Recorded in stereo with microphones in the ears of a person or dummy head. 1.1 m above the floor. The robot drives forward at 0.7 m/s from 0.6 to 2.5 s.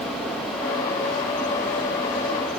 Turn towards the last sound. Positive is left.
No sound to turn to.